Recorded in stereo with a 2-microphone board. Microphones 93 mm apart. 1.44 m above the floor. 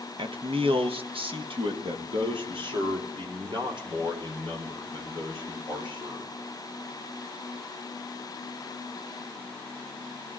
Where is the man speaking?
65° right (ahead or behind), 0.9 m; by 6.3 s 55° right (ahead or behind), 5 m.